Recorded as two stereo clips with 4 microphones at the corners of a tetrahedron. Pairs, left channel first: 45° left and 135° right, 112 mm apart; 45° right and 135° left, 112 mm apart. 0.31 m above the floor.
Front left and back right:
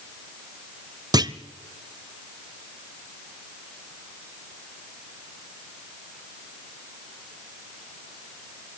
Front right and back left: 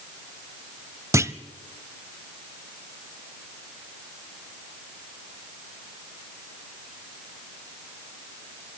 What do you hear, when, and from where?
1.1 s a clunk: 175° right, 0.6 m